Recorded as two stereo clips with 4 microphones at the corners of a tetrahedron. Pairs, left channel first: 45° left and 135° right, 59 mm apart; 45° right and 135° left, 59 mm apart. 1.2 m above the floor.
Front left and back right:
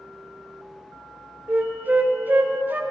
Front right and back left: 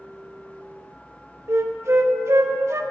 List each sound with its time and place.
1.5 s a flute: 165° left, 0.9 m